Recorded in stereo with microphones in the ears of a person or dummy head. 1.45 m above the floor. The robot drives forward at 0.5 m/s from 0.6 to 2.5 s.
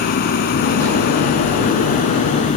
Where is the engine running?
45° left (ahead or behind); by 2.6 s 35° left (ahead or behind).